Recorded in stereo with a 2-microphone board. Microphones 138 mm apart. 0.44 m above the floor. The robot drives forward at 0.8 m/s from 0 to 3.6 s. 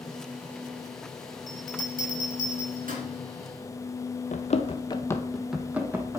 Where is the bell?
65° right (ahead or behind), 2 m; by 3.0 s 75° right (ahead or behind), 2.0 m.